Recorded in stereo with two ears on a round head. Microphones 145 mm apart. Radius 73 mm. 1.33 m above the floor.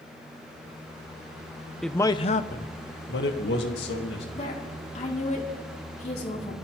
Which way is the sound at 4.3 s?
45° left (ahead or behind).